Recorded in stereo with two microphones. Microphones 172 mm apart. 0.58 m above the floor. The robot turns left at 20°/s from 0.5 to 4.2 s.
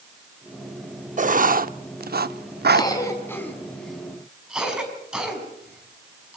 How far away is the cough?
About 4.5 m.